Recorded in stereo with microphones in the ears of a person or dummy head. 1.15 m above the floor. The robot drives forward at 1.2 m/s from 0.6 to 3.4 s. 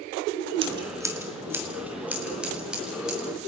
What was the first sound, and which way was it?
Scissors, 35° right (ahead or behind).